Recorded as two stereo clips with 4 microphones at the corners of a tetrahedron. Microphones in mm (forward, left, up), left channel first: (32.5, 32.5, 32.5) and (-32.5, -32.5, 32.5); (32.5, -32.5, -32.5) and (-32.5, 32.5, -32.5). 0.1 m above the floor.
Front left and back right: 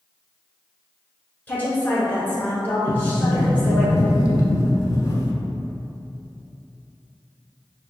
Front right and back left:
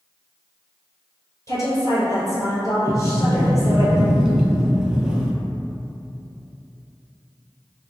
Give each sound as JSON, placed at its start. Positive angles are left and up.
{"t": 1.5, "sound": "a woman speaking", "azimuth_deg": -20, "distance_m": 1.4}
{"t": 2.9, "sound": "a sliding door", "azimuth_deg": 55, "distance_m": 0.5}